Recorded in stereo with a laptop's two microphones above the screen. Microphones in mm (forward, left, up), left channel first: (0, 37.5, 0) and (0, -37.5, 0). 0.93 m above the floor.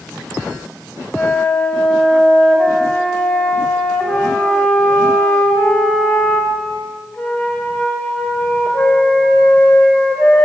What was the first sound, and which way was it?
A flute, 15° left (ahead or behind).